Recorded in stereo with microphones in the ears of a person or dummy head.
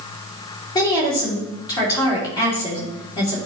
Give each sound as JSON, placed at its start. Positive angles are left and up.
{"t": 0.8, "sound": "a woman speaking", "side_deg": 25, "distance_m": 3.5}